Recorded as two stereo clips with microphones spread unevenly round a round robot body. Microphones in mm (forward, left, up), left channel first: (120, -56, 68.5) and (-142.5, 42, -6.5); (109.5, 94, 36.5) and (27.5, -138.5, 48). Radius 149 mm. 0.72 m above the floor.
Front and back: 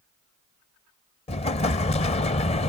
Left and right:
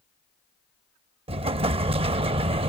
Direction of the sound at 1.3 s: 55° right.